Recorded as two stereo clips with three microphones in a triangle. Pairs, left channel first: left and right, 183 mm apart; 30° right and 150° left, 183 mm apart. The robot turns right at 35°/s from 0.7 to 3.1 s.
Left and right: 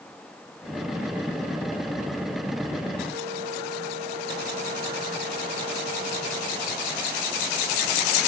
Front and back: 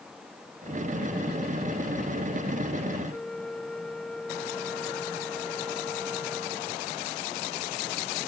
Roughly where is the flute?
Behind right.